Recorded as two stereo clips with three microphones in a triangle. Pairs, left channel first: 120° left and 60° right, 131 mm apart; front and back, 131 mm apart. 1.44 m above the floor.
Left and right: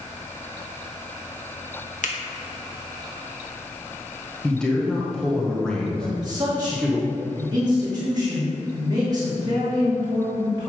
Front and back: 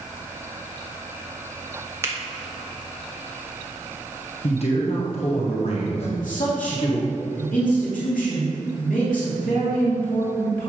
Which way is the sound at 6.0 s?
Straight ahead.